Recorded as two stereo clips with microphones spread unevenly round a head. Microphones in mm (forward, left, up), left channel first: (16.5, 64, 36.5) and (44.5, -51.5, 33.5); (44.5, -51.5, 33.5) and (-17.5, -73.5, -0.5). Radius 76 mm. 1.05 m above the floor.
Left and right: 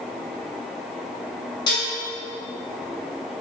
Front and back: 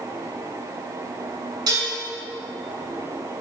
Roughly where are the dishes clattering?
Behind.